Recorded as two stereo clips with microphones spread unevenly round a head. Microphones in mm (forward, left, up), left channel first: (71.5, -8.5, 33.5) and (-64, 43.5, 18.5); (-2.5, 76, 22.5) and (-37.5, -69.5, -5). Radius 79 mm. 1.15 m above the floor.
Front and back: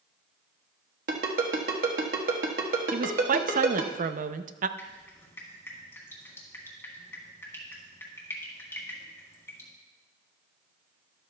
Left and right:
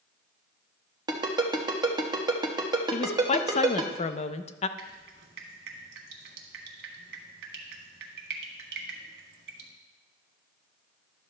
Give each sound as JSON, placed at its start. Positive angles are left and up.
{"t": 1.1, "sound": "a ringtone", "azimuth_deg": -170, "distance_m": 1.3}
{"t": 2.9, "sound": "a woman speaking", "azimuth_deg": 125, "distance_m": 0.6}
{"t": 4.8, "sound": "dripping", "azimuth_deg": -90, "distance_m": 1.6}